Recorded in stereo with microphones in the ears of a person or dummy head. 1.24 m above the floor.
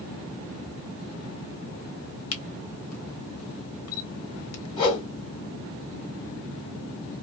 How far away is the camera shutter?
About 1.1 m.